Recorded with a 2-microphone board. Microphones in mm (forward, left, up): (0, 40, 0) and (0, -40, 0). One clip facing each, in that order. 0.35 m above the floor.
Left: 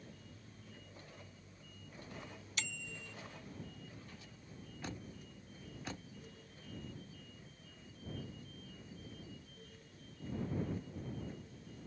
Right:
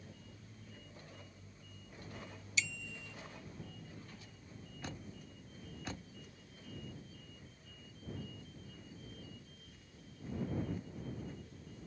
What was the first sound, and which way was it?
A bicycle bell, 55° left (ahead or behind).